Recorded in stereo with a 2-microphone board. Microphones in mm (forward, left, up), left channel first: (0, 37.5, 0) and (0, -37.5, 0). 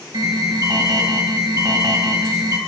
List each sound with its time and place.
0.1 s an alarm: 55° right (ahead or behind), 2.0 m